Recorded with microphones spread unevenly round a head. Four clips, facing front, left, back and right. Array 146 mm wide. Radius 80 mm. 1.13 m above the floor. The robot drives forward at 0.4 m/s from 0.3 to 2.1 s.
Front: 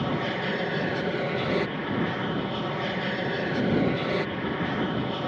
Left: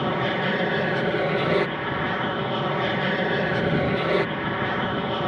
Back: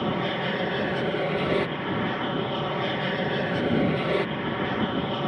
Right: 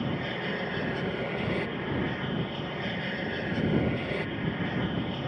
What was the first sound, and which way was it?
An aircraft, 95° left.